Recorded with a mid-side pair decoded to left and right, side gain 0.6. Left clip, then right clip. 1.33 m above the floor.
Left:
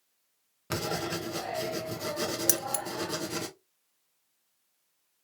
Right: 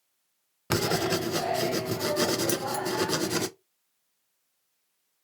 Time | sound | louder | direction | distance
0.7 | writing | right 6 dB | 40° right | 0.6 m
2.5 | keys jangling | right 2 dB | 45° left | 0.7 m